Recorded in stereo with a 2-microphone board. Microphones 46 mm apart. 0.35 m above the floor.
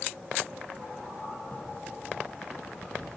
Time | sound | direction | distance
1.5 | a crack | 30° left (ahead or behind) | 0.5 m